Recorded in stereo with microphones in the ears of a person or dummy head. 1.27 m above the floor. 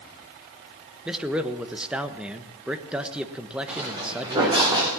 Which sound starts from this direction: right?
Footsteps, at 3.7 s.